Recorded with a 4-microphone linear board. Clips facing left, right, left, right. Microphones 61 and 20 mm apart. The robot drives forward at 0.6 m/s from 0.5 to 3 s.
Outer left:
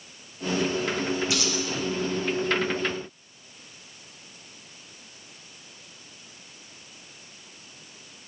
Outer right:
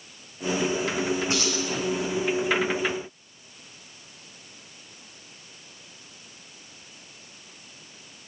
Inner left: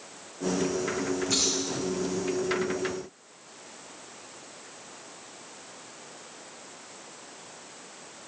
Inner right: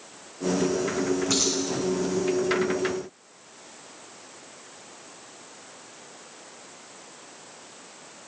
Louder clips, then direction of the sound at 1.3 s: Outer right 1 dB, inner left 1 dB; 40° right (ahead or behind).